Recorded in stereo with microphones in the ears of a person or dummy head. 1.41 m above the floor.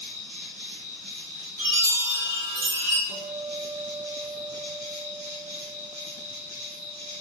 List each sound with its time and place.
0.0 s an insect: 60° right (ahead or behind), 1.7 m
1.6 s a chime: 60° right (ahead or behind), 1.9 m
3.1 s a guitar: 50° right (ahead or behind), 0.7 m